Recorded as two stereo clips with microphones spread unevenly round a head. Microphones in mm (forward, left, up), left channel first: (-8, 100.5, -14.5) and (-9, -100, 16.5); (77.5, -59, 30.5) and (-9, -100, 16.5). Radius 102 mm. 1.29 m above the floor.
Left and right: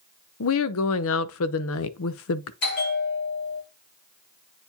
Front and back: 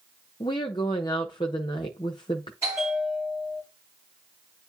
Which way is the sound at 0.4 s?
85° left.